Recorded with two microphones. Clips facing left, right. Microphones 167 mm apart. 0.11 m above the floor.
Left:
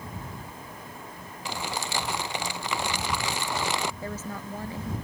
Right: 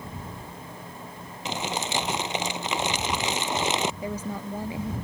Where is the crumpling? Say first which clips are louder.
Right 3 dB; 20° right (ahead or behind).